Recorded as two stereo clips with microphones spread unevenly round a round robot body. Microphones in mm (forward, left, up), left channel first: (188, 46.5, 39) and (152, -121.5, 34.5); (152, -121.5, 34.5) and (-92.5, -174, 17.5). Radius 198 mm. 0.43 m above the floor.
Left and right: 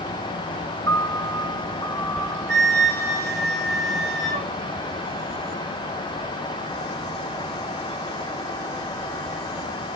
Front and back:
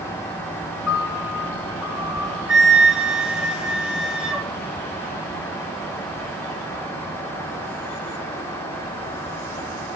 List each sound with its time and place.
0.9 s a piano: 10° left, 3.5 m
2.5 s a flute: 80° right, 4.5 m